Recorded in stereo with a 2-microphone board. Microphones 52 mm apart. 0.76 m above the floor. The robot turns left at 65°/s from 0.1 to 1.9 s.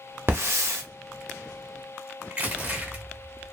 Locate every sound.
0.3 s a hiss: 50° right, 0.8 m; by 0.8 s 85° right, 0.8 m
2.3 s crushing: 35° right (ahead or behind), 0.9 m